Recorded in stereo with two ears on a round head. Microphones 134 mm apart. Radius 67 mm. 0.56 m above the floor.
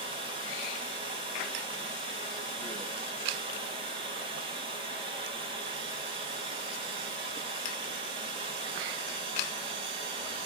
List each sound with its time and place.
0.0 s running water: 35° right (ahead or behind), 3.5 m